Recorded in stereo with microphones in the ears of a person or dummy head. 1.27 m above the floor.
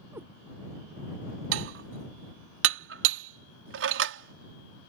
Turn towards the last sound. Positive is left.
turn(degrees=-65)  # may be behind; listen again after turning